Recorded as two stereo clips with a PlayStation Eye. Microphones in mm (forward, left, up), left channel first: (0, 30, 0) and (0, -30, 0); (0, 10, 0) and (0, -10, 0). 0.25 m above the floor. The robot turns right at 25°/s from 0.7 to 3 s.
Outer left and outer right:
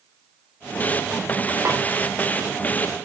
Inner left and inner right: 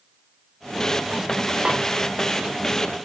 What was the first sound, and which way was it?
A snare drum, 45° right (ahead or behind).